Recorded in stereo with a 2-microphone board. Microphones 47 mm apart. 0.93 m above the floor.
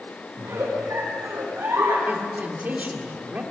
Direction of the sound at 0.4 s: 75° right (ahead or behind).